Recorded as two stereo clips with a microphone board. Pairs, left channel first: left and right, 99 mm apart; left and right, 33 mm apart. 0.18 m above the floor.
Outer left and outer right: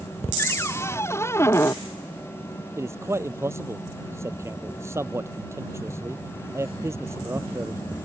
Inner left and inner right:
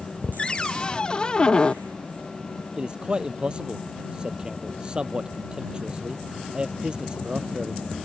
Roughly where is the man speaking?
Right.